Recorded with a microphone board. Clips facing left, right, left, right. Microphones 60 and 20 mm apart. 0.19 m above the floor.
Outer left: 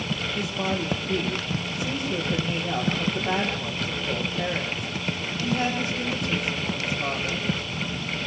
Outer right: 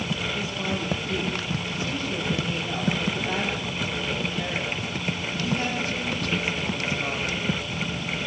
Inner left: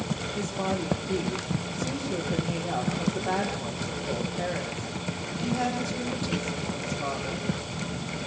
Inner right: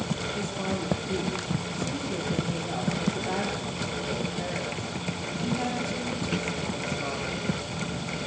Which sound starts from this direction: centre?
A woman speaking, at 0.3 s.